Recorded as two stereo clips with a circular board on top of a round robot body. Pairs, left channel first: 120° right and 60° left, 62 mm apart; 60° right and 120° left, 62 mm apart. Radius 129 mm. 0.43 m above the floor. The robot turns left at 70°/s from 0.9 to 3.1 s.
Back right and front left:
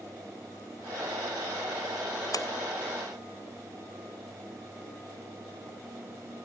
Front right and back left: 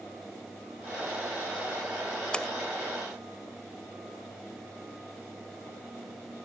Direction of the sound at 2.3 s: 135° right.